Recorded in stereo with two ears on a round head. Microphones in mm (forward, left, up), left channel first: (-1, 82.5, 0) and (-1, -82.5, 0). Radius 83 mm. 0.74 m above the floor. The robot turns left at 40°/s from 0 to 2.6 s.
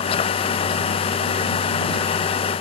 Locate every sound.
Only background noise.